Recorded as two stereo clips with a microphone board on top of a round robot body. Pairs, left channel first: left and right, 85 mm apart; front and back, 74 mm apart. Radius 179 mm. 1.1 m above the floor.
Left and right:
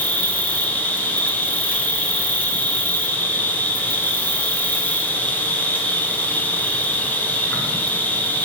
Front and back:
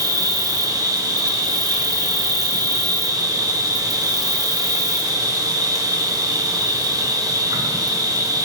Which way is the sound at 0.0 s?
160° left.